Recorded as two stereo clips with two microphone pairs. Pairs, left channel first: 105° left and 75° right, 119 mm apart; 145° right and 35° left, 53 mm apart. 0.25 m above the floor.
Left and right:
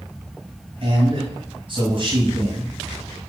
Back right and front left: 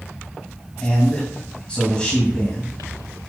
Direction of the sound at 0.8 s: 80° right.